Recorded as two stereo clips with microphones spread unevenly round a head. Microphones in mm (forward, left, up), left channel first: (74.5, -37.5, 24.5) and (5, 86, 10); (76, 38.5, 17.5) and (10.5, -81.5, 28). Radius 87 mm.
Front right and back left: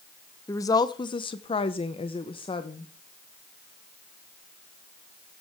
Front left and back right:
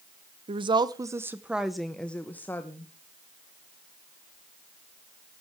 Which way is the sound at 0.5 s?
125° right.